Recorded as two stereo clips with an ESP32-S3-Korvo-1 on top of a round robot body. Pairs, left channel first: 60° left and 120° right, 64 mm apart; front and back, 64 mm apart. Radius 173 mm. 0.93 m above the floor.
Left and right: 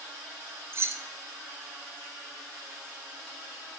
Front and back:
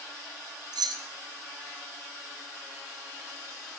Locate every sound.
0.7 s keys jangling: 170° right, 0.6 m